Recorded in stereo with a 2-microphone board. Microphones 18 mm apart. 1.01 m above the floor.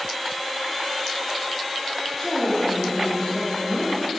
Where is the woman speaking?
25° left (ahead or behind), 2.5 m; by 4.0 s 5° left (ahead or behind), 1.0 m.